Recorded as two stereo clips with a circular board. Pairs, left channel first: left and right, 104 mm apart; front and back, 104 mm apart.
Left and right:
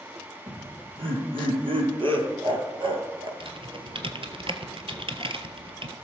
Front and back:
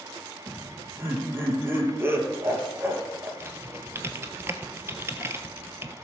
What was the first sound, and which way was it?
Laughter, 115° right.